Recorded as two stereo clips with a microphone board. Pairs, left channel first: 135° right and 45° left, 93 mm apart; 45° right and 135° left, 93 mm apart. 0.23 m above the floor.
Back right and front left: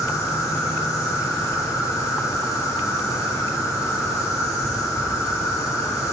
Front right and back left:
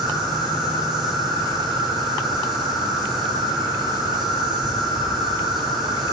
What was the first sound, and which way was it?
An insect, 140° right.